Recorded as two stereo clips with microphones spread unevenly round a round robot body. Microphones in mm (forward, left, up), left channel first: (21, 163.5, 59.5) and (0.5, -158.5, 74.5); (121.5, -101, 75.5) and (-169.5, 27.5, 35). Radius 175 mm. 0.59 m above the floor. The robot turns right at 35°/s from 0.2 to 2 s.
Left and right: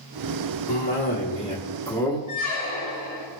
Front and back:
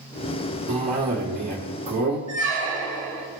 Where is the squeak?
115° left, 1.8 m.